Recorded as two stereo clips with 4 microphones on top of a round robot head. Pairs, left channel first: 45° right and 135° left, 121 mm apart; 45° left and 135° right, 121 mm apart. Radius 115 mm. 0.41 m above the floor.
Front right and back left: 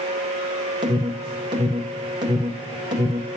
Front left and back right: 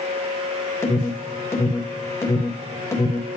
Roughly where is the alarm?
Left.